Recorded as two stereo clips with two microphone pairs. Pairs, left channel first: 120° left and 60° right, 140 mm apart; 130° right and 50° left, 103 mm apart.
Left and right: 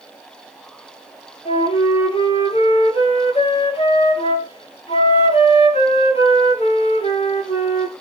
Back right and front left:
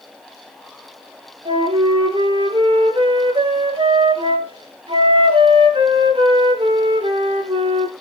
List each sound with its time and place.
1.4 s a flute: 75° left, 4 m